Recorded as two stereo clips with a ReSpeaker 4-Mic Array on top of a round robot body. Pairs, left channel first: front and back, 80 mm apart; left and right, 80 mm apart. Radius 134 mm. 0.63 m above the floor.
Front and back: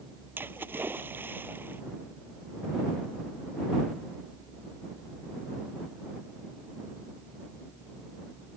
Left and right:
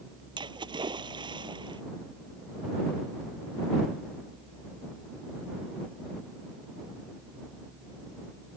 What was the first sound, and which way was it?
A splash, 115° right.